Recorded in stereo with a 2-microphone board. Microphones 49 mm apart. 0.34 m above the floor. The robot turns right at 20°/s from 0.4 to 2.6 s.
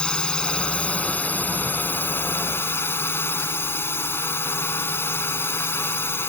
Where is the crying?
I don't hear crying.